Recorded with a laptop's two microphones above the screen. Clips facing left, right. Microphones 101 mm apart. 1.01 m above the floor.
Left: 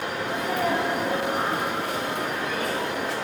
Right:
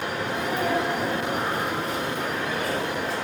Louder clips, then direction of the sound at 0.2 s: Left 1 dB; 70° left (ahead or behind).